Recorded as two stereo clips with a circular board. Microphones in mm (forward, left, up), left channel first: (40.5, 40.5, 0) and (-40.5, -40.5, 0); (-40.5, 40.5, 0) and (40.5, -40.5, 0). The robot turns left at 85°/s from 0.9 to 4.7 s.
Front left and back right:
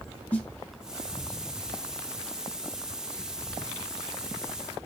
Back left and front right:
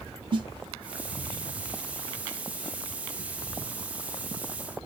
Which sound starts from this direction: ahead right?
A snare drum, at 0.3 s.